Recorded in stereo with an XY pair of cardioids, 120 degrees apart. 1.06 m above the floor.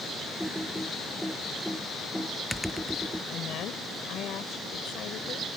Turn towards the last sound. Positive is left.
turn(degrees=65)